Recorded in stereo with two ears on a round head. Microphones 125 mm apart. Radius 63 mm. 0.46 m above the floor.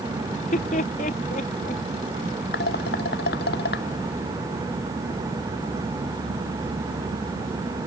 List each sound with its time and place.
0.3 s laughter: 50° left (ahead or behind)
2.5 s dishes clattering: 85° left